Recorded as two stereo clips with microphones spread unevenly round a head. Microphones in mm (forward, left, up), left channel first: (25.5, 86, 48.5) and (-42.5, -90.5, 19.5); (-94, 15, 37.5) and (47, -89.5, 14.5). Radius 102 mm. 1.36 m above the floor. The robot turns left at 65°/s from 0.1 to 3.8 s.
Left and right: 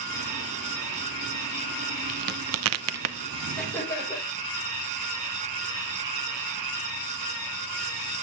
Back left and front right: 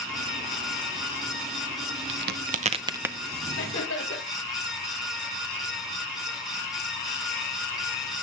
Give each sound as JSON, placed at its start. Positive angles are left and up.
{"t": 2.1, "sound": "a crack", "azimuth_deg": -55, "distance_m": 0.7}
{"t": 3.6, "sound": "laughter", "azimuth_deg": 150, "distance_m": 5.5}